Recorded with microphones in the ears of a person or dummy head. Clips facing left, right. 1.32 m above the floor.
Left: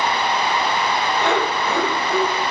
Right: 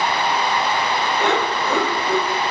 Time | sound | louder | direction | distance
1.2 | laughter | even | 20° right (ahead or behind) | 1.1 m